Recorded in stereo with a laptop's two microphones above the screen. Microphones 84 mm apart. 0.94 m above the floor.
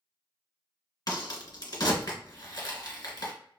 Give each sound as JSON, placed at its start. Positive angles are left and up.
{"t": 1.1, "sound": "a crack", "side_deg": 50, "distance_m": 1.3}